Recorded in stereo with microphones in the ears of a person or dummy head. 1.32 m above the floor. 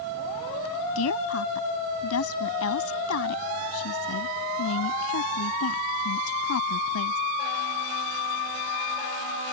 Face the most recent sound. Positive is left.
turn(degrees=90)